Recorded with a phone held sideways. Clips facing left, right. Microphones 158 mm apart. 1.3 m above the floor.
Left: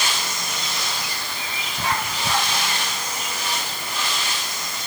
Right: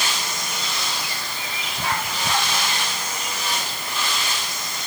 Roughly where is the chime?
No chime in this recording.